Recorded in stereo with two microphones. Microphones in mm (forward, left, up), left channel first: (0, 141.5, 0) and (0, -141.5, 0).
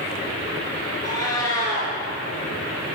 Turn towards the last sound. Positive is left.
turn(degrees=10)  # may be behind; listen again after turning